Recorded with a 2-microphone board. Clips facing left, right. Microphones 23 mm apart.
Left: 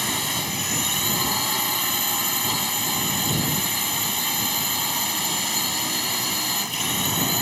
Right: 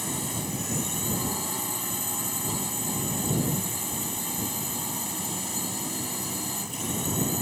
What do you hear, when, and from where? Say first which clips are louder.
0.0 s a drone: left 7 dB; 60° left (ahead or behind)